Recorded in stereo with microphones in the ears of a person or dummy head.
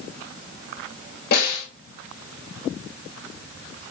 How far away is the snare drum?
About 3 m.